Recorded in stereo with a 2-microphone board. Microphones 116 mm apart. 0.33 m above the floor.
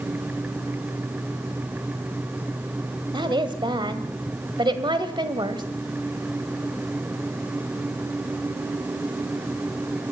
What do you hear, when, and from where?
3.1 s a woman speaking: 45° right (ahead or behind), 1.6 m